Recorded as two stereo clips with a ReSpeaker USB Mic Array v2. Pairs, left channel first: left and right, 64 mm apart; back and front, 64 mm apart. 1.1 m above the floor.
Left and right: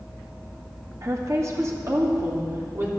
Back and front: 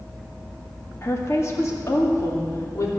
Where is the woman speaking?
130° right, 1.8 m; by 2.9 s 140° right, 3 m.